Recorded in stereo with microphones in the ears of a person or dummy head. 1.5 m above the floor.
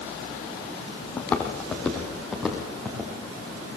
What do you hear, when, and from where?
1.2 s footsteps: 5° left (ahead or behind), 3 m; by 3.1 s 10° right (ahead or behind), 4 m